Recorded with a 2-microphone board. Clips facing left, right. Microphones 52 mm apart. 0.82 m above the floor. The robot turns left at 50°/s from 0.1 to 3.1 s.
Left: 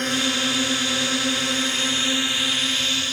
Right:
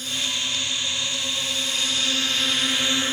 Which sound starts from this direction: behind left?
A drone, at 0.0 s.